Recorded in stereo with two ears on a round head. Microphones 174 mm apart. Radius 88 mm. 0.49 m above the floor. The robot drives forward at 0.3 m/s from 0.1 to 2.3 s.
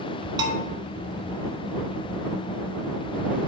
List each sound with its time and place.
0.4 s a bell: 25° right (ahead or behind), 1.7 m